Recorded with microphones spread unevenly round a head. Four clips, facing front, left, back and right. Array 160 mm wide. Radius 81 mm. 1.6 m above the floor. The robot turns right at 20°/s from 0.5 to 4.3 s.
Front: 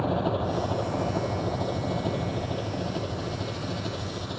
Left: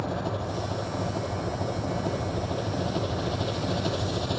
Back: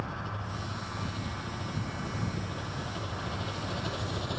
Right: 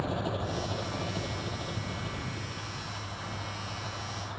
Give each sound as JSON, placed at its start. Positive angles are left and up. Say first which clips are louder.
{"t": 0.0, "sound": "an engine running", "louder": "left 2 dB, front 12 dB", "azimuth_deg": 10}